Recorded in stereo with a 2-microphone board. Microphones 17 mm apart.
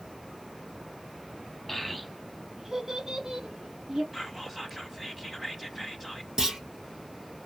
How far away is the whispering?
About 1.1 m.